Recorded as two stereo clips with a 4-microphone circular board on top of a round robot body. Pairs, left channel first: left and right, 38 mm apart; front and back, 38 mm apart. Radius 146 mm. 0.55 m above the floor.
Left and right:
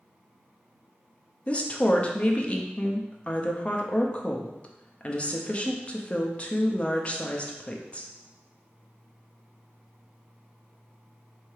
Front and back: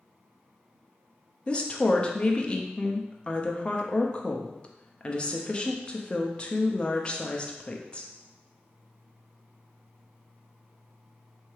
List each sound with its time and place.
1.5 s a woman speaking: 50° left, 0.8 m